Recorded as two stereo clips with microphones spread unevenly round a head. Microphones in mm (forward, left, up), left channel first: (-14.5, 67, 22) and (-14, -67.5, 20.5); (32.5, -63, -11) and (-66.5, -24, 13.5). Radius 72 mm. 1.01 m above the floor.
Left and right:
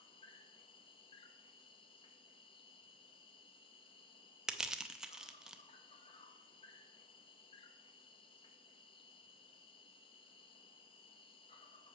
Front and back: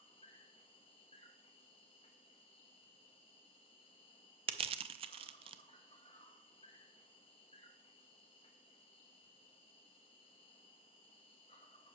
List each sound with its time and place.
0.0 s an insect: 35° left, 0.7 m
4.5 s crushing: 175° right, 0.6 m